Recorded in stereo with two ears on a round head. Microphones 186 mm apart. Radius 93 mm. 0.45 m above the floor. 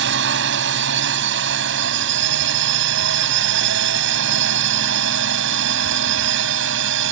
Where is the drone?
60° right (ahead or behind); by 7.1 s 65° right (ahead or behind).